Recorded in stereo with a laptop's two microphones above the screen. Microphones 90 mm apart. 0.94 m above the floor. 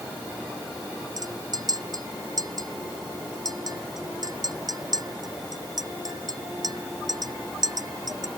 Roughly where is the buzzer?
I don't hear a buzzer.